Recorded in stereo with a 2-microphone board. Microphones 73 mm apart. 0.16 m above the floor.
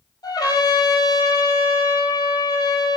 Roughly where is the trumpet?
Left.